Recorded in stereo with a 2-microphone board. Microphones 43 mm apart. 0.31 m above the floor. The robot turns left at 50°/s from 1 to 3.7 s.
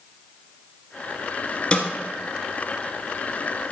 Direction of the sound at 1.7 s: 25° left (ahead or behind).